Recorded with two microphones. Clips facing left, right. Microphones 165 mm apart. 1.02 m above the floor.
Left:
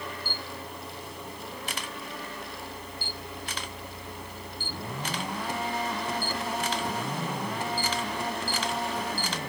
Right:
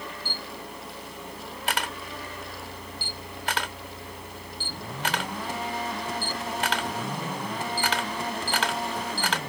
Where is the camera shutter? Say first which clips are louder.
Even; 80° right.